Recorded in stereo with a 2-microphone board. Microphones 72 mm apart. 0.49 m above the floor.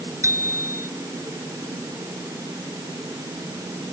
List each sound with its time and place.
0.2 s a bicycle bell: 40° right (ahead or behind)